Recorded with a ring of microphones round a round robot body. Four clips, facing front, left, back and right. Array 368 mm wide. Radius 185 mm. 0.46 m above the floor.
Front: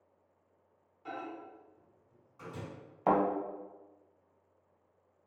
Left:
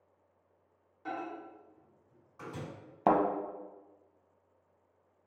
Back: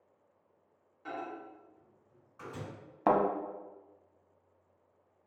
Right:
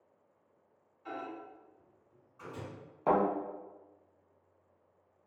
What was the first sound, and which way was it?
A microwave, 105° left.